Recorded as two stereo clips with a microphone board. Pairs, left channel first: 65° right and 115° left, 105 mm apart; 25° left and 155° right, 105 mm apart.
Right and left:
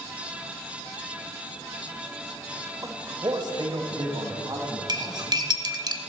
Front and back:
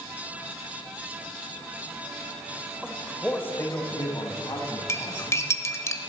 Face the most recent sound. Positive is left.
turn(degrees=80)